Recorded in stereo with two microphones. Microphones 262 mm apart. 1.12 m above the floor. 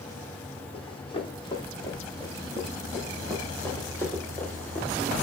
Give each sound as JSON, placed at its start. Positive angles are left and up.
{"t": 0.7, "sound": "running footsteps", "side_deg": 20, "distance_m": 10.0}